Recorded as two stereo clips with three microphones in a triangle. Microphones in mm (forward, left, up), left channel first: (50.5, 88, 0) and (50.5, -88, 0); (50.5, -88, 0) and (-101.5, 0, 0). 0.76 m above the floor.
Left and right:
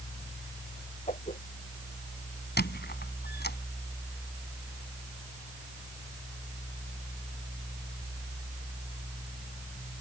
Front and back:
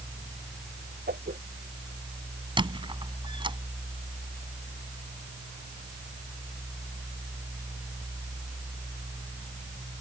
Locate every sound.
1.1 s a whoosh: 135° left
2.6 s a squeak: 90° left